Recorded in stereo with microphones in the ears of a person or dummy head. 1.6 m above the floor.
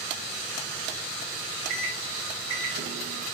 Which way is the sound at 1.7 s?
70° right (ahead or behind).